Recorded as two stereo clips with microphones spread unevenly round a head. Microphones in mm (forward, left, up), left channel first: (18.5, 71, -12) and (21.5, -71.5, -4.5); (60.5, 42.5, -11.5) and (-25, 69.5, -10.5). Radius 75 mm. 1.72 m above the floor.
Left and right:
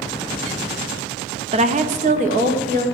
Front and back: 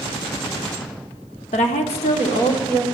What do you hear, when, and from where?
1.5 s a woman speaking: 40° right, 0.8 m; by 2.9 s 55° right, 2 m